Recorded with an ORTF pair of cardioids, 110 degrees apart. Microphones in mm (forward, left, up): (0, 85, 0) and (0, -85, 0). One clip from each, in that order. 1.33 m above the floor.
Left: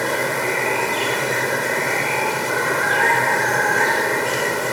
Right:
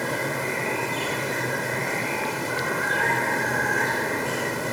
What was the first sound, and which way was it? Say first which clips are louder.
Running water: left 6 dB; 35° left.